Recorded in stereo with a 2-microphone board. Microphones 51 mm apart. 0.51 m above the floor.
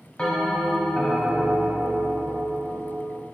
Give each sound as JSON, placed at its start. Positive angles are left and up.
{"t": 0.2, "sound": "a bell", "side_deg": 20, "distance_m": 1.3}